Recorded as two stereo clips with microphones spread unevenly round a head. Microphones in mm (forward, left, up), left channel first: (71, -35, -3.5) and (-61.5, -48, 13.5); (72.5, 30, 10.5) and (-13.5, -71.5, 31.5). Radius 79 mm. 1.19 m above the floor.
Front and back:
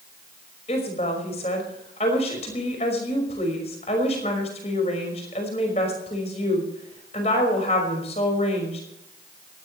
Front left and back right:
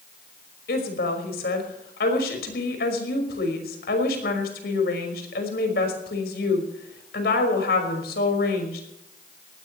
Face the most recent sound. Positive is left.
turn(degrees=60)